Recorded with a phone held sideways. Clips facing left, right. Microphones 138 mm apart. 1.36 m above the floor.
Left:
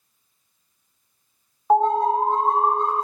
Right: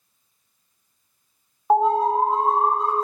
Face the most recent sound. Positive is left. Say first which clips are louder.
# even
turn(degrees=-5)  # may be behind; listen again after turning